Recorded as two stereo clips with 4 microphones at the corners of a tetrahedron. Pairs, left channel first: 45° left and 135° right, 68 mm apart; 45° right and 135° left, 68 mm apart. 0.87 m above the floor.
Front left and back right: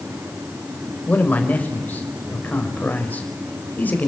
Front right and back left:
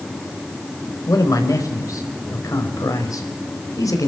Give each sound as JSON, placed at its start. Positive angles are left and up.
{"t": 1.1, "sound": "a man speaking", "azimuth_deg": -20, "distance_m": 4.5}